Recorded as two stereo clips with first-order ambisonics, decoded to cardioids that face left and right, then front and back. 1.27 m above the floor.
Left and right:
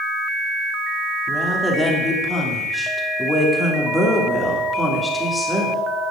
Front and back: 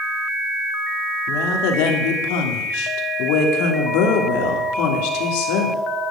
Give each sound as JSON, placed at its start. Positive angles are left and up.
{"t": 1.3, "sound": "a woman speaking", "azimuth_deg": 5, "distance_m": 3.0}